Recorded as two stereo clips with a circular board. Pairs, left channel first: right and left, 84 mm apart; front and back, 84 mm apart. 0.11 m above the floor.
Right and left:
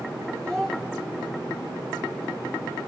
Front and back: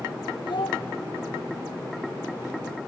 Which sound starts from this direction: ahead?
A child speaking, at 0.4 s.